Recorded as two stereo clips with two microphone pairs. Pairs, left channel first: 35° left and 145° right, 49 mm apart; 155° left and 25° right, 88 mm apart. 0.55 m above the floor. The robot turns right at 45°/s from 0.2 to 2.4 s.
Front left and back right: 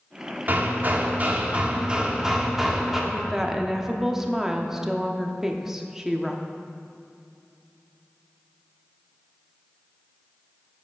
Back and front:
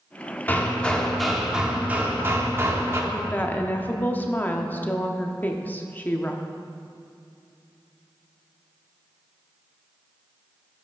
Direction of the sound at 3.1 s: 145° left.